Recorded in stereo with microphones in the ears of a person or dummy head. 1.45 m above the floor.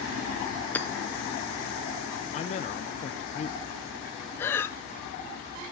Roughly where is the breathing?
Centre.